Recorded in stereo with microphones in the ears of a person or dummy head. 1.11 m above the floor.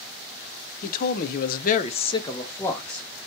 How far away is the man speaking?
About 0.6 m.